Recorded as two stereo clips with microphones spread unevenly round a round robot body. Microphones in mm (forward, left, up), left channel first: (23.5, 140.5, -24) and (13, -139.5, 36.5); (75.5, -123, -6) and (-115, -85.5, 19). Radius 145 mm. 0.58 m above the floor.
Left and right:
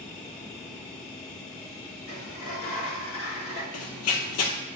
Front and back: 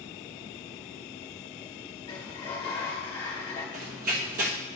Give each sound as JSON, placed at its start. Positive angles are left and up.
{"t": 2.1, "sound": "a sliding door", "azimuth_deg": 60, "distance_m": 1.2}
{"t": 3.7, "sound": "running footsteps", "azimuth_deg": 130, "distance_m": 1.0}